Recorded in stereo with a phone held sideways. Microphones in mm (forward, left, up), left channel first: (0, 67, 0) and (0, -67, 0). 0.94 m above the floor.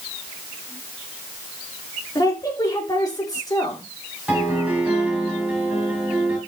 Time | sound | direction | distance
2.1 | a woman speaking | 30° left (ahead or behind) | 2.5 m
4.3 | a piano | 10° right (ahead or behind) | 3 m